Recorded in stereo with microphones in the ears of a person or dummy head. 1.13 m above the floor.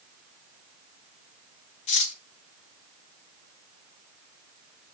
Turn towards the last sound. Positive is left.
turn(degrees=45)  # may be behind; listen again after turning